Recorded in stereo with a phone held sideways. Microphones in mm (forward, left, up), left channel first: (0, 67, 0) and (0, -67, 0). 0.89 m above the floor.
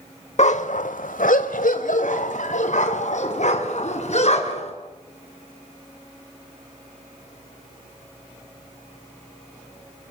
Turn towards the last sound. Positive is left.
turn(degrees=55)  # may be behind; listen again after turning